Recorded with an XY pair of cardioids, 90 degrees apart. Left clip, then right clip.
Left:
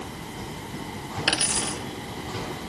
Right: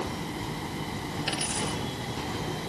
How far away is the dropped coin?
About 3.5 m.